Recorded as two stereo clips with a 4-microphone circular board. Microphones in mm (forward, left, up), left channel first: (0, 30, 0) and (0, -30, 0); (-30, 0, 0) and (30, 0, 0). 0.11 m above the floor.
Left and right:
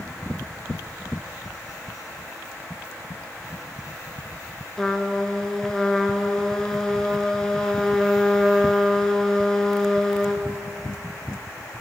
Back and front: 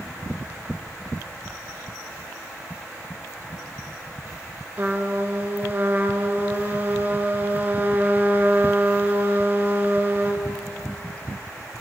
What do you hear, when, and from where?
4.8 s a trumpet: 15° left, 0.6 m